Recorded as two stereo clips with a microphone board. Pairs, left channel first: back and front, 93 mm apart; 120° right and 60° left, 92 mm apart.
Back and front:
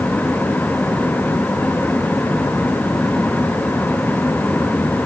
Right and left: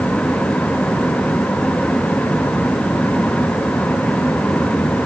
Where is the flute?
I don't hear a flute.